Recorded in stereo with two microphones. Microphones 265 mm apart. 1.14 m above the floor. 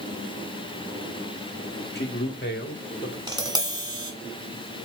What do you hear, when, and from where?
1.9 s a man speaking: 40° left (ahead or behind), 2.5 m; by 3.2 s 45° left (ahead or behind), 3.5 m
3.3 s tapping: 15° right (ahead or behind), 2.5 m